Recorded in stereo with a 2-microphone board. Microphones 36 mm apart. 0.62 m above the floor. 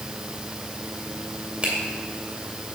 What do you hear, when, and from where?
1.6 s a finger snap: 30° right (ahead or behind), 2 m